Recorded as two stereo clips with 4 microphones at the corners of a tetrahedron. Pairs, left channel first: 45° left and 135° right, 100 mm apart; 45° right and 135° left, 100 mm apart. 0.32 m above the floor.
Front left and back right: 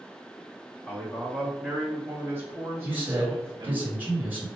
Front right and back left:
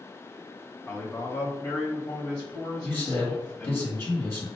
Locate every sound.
0.9 s a man speaking: 5° right, 1.1 m; by 3.8 s 110° right, 1.7 m
2.8 s a man speaking: 85° right, 1.7 m